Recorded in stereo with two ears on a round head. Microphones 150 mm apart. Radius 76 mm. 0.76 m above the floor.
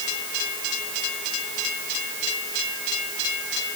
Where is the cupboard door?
I don't hear a cupboard door.